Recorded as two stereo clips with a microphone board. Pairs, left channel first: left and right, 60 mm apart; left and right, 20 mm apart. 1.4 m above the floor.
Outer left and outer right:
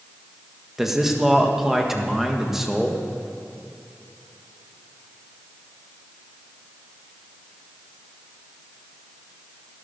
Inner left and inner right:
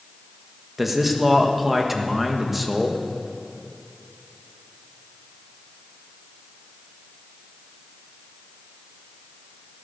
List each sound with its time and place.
0.8 s a man speaking: 5° right (ahead or behind), 1.6 m